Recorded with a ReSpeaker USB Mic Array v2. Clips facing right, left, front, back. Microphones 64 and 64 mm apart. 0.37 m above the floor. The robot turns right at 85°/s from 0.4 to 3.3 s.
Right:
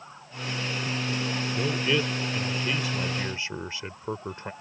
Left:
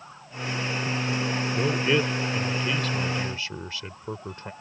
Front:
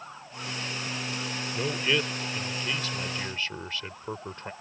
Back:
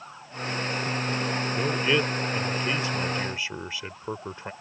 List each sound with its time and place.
1.5 s a man speaking: 95° left; by 4.5 s 115° right